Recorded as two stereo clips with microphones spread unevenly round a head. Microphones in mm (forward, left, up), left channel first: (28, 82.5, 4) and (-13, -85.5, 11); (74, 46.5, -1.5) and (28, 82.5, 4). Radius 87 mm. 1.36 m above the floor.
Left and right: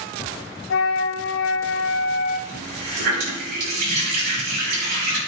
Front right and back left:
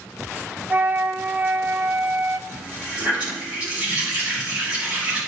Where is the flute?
85° left, 1.4 m.